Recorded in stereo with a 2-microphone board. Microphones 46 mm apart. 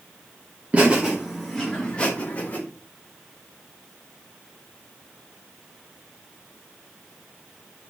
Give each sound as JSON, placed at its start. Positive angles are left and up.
{"t": 0.7, "sound": "laughter", "side_deg": -30, "distance_m": 1.1}